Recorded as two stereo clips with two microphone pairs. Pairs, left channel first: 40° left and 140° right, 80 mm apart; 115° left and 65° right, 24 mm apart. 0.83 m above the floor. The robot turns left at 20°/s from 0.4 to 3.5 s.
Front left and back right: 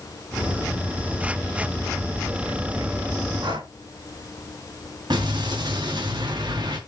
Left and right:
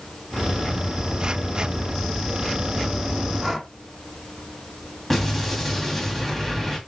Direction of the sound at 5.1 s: 160° right.